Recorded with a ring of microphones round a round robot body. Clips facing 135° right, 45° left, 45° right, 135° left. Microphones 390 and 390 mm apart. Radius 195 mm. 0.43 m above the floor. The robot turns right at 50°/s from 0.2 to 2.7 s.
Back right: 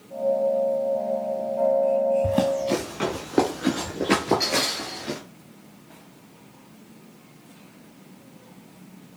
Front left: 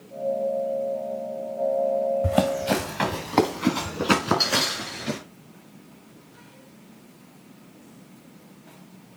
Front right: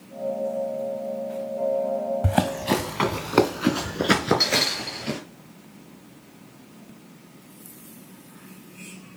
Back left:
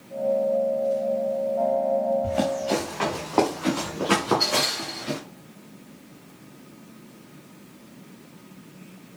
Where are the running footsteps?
30° right, 2.5 m; by 5.2 s 5° right, 5 m.